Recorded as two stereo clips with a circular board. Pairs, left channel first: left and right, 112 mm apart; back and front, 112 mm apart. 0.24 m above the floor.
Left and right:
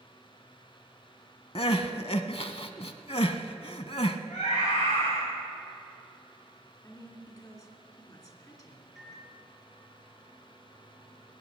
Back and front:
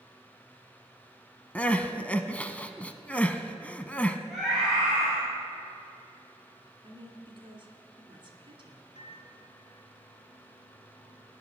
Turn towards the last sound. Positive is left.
turn(degrees=-175)